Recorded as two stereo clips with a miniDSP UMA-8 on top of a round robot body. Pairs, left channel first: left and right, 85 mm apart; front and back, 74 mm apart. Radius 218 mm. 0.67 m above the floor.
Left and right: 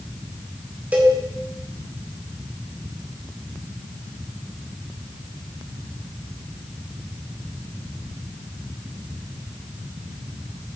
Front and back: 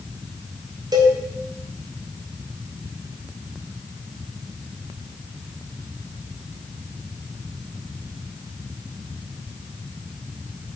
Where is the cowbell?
160° right, 2 m.